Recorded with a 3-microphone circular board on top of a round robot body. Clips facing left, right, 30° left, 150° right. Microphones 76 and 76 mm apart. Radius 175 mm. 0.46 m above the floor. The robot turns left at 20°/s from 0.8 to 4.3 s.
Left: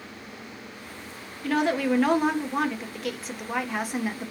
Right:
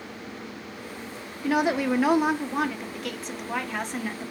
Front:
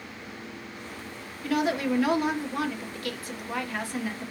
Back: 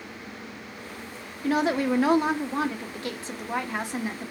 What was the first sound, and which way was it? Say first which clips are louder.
A woman speaking: even, back 2 dB; 150° right.